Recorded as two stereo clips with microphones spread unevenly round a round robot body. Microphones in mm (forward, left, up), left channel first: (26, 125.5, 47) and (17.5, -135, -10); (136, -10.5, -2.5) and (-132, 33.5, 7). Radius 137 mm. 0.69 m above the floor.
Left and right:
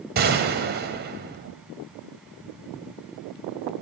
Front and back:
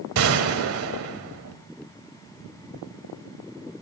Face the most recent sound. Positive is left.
turn(degrees=-150)